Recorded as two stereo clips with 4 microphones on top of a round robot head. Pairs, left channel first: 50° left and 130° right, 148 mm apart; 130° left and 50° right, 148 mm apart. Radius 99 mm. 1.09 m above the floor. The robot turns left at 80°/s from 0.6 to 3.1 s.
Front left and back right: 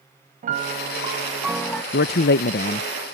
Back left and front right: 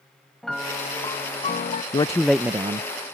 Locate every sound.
0.4 s a piano: 140° right; by 1.8 s 120° left
1.9 s a man speaking: 75° left; by 2.9 s straight ahead